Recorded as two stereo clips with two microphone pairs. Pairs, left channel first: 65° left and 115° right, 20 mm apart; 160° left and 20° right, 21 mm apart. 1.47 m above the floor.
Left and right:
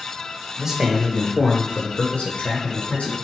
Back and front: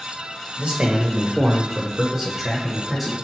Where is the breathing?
I don't hear breathing.